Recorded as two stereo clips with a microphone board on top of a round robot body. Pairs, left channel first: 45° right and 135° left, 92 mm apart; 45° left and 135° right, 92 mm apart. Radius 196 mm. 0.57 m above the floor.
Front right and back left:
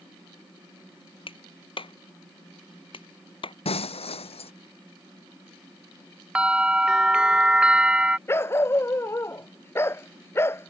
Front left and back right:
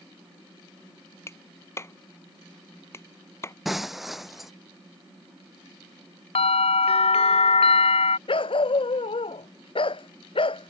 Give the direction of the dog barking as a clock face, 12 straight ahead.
11 o'clock.